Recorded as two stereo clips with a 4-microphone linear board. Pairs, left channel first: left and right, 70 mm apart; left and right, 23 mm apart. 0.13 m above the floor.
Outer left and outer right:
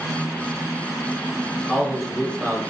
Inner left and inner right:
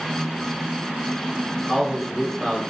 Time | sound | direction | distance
1.7 | a man speaking | 5° left (ahead or behind) | 1.2 m